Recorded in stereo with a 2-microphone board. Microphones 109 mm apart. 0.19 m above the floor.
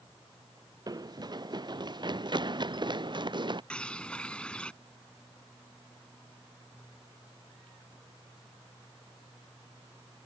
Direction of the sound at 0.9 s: 35° right (ahead or behind).